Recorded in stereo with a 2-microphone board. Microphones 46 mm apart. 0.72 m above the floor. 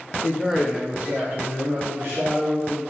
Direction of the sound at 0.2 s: 5° left (ahead or behind).